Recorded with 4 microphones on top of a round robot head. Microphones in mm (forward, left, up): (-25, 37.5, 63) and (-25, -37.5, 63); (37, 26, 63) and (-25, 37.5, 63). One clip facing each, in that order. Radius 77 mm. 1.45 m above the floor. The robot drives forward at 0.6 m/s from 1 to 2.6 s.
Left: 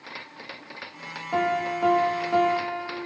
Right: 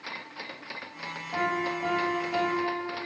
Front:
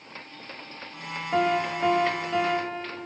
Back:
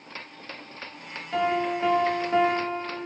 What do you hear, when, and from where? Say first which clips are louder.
1.3 s a piano: left 4 dB, front 1 dB; 45° left, 0.9 m; by 3.0 s 130° left, 0.9 m